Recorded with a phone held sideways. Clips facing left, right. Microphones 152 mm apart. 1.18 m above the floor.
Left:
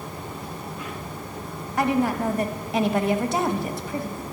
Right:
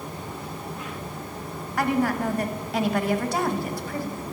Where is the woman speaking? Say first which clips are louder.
Left 1 dB; 20° left (ahead or behind), 1.2 m.